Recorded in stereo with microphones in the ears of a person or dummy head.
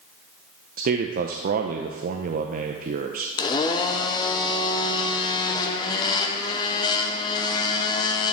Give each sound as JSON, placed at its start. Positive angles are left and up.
{"t": 0.8, "sound": "a man speaking", "side_deg": -45, "distance_m": 0.6}
{"t": 3.4, "sound": "a blender", "side_deg": 25, "distance_m": 0.7}